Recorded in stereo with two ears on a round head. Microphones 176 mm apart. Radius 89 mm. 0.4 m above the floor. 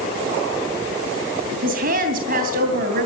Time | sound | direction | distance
1.6 | a woman speaking | 50° right (ahead or behind) | 3 m